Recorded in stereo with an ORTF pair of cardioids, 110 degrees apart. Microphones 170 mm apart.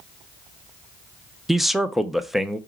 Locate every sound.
1.5 s a man speaking: straight ahead, 0.5 m